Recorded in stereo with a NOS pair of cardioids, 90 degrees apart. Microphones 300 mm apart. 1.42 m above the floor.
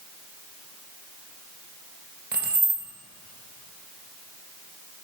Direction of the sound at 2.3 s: 30° right.